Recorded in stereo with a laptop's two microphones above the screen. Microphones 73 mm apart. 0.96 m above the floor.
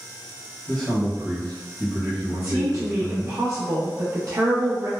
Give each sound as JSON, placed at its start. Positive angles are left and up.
{"t": 0.7, "sound": "a man speaking", "side_deg": 10, "distance_m": 0.9}
{"t": 2.3, "sound": "a woman speaking", "side_deg": -50, "distance_m": 0.7}